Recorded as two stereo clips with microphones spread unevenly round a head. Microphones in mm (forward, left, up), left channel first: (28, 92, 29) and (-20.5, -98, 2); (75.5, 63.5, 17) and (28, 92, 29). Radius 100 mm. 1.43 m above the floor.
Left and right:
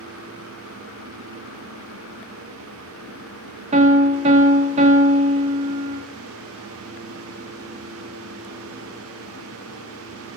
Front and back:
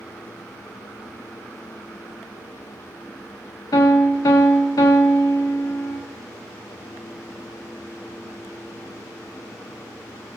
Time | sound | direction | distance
3.7 | a piano | 45° right | 0.8 m